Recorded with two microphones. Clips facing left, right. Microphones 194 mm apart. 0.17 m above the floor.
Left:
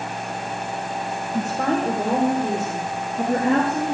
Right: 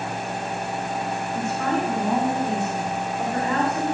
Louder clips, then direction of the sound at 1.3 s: Left 3 dB; 70° left (ahead or behind).